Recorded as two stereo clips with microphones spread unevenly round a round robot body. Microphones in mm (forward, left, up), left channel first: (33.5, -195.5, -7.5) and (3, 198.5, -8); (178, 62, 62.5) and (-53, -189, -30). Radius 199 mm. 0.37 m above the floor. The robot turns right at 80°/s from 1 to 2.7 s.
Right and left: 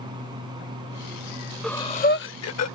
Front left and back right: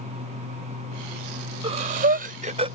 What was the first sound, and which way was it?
Breathing, 175° right.